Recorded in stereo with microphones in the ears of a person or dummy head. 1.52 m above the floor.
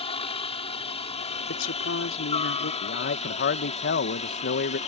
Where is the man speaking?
60° left (ahead or behind).